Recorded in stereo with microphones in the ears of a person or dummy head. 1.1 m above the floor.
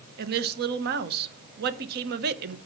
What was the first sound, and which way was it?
A woman speaking, 55° right (ahead or behind).